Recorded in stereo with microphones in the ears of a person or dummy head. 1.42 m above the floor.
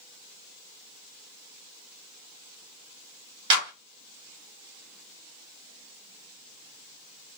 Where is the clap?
30° right (ahead or behind), 4 m.